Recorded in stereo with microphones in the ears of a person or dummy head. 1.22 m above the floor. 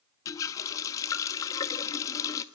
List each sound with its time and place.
0.2 s a running tap: 25° left (ahead or behind), 1.0 m